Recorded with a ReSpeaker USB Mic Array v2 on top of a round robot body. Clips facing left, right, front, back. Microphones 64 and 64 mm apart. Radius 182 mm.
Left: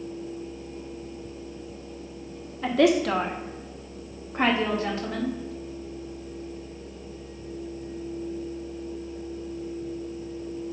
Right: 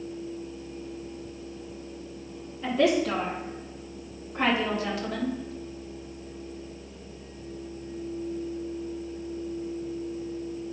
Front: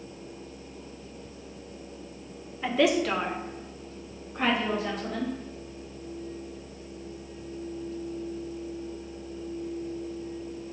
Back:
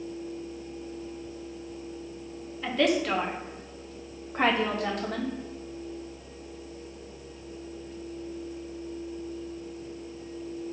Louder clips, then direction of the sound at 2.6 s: Left 3 dB, front 1 dB; 75° left.